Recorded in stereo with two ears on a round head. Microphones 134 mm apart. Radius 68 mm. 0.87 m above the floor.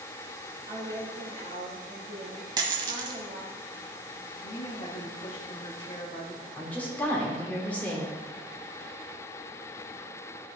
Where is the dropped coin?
30° right (ahead or behind), 1.2 m.